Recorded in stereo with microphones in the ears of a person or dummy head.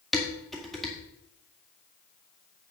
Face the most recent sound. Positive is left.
turn(degrees=5)  # may be behind; listen again after turning